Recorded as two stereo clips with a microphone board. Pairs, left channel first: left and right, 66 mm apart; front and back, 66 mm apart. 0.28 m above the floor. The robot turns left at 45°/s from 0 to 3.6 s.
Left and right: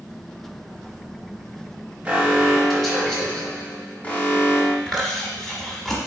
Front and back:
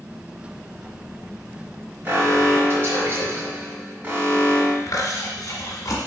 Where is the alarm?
150° right, 1.2 m; by 4.8 s 145° left, 1.2 m.